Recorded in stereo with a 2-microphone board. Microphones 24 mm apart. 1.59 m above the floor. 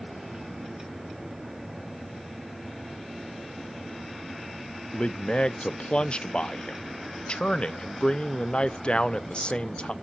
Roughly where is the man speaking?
Left.